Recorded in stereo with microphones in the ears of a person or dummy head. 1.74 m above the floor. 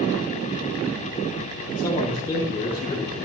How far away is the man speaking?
About 9 m.